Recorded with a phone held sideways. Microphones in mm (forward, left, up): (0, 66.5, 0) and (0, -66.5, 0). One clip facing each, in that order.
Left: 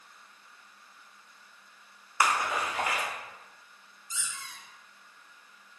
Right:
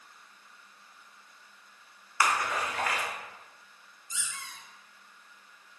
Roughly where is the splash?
Centre.